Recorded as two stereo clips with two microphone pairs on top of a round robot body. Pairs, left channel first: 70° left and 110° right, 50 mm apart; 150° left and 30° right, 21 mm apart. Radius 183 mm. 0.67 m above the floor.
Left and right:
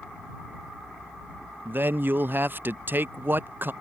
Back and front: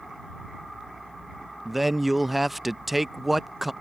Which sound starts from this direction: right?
A man speaking, at 1.6 s.